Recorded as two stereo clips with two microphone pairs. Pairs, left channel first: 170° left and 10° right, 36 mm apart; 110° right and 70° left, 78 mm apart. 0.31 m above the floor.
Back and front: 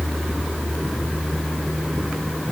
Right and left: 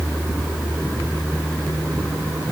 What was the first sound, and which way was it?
Only background noise.